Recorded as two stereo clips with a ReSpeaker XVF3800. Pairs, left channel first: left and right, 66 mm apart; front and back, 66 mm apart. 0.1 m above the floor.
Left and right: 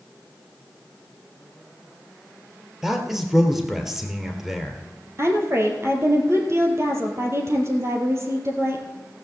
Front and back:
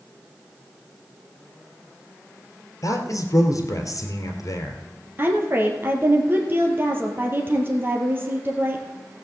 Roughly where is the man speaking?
Ahead.